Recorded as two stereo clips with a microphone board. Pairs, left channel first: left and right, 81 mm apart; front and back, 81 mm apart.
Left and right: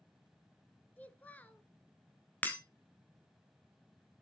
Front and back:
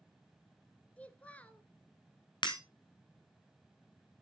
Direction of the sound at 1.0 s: 45° left.